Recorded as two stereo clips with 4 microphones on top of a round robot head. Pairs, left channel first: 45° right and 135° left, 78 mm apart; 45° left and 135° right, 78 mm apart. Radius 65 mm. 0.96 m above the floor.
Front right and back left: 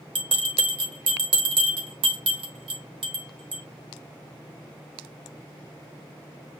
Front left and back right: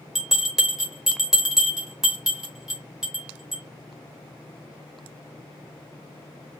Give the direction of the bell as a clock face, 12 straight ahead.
7 o'clock.